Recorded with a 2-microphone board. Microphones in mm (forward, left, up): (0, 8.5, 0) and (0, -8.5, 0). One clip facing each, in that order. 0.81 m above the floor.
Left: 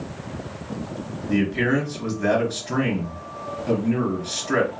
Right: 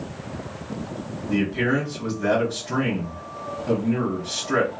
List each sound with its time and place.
1.3 s a man speaking: 25° left (ahead or behind), 2 m